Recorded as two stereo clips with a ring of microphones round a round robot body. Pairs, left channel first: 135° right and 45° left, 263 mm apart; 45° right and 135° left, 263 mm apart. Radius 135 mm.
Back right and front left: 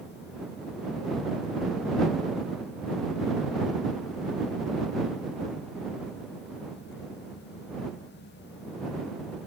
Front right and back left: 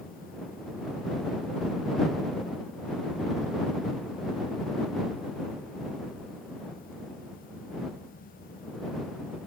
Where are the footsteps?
I don't hear footsteps.